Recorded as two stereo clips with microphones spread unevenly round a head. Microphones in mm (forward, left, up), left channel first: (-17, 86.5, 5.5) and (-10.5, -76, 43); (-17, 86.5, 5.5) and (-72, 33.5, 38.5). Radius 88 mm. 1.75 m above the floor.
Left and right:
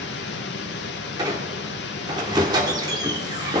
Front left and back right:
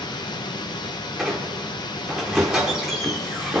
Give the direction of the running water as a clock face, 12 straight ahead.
10 o'clock.